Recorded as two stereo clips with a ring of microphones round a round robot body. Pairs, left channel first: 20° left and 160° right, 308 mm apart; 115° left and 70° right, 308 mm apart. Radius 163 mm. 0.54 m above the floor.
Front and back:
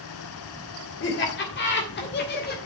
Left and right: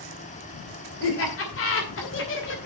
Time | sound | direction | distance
1.0 | laughter | 70° left | 3 m